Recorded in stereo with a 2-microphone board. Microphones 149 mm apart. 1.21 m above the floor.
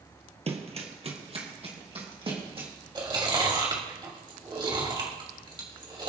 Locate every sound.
0.5 s running footsteps: 45° right (ahead or behind), 1.7 m; by 2.7 s 40° right (ahead or behind), 3.5 m
3.0 s chewing: 30° right (ahead or behind), 2.5 m